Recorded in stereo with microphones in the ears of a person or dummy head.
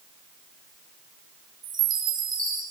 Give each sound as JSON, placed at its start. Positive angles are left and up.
{"t": 1.6, "sound": "a chime", "side_deg": -15, "distance_m": 3.0}